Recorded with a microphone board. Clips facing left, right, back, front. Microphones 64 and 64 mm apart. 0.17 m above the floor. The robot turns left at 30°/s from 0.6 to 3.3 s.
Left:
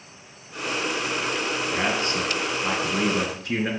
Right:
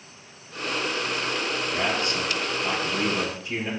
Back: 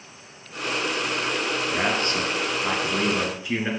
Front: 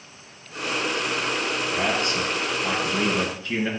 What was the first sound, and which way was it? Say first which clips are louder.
A man speaking: left 1 dB, even; 155° left.